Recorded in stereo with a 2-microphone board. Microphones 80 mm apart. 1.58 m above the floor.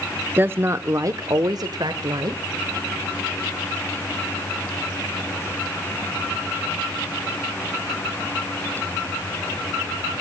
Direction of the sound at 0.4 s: 25° right (ahead or behind).